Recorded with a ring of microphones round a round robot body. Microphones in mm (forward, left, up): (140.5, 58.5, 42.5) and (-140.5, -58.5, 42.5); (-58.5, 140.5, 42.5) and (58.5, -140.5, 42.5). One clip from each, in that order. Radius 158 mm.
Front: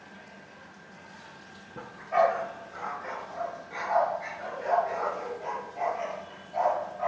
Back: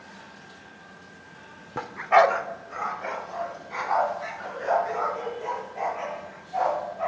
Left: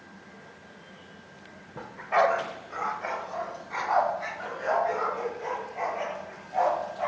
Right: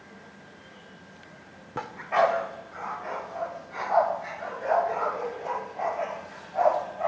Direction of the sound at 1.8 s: 115° right.